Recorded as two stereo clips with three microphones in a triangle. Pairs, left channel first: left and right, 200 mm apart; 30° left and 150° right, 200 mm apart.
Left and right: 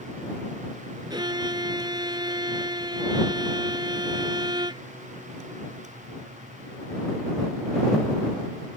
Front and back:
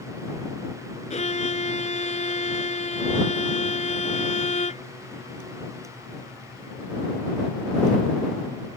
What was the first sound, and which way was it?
A violin, 25° right.